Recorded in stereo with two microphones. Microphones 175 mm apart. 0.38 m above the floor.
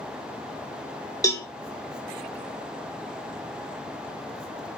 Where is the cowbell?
20° left (ahead or behind), 0.6 m.